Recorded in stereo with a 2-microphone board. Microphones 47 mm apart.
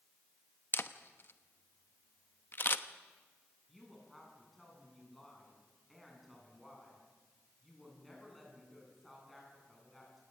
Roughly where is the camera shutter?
Left.